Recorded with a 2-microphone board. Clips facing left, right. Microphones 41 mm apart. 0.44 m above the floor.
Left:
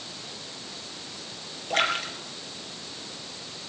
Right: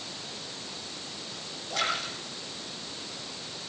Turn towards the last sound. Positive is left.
turn(degrees=55)  # may be behind; listen again after turning